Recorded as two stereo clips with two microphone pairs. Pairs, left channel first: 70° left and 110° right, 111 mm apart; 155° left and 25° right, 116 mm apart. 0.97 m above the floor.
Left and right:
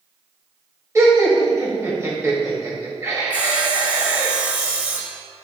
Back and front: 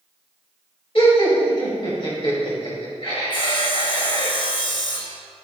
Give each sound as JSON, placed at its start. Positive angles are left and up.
{"t": 0.9, "sound": "laughter", "azimuth_deg": -170, "distance_m": 2.0}
{"t": 3.3, "sound": "sawing", "azimuth_deg": 180, "distance_m": 1.0}